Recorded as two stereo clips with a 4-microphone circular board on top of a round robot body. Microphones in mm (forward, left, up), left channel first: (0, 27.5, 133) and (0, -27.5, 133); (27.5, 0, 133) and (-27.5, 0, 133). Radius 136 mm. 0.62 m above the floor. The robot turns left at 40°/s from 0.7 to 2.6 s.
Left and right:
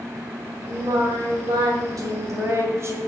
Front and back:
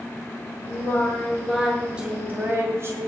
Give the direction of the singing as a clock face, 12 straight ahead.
2 o'clock.